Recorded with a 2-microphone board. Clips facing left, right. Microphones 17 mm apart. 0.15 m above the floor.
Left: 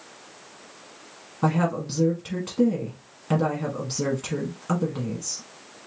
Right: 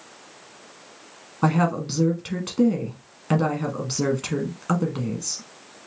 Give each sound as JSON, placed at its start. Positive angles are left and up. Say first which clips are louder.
{"t": 1.4, "sound": "a woman speaking", "louder": "right 2 dB", "side_deg": -25, "distance_m": 1.2}